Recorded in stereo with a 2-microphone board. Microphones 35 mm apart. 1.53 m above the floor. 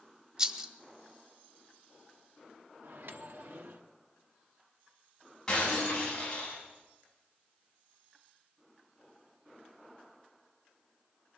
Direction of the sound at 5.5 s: 20° left (ahead or behind).